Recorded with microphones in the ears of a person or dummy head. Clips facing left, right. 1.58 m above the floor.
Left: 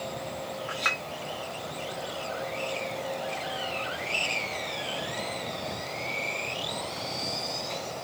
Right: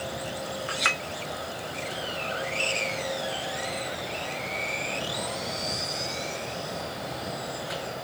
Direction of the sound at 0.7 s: 20° right (ahead or behind).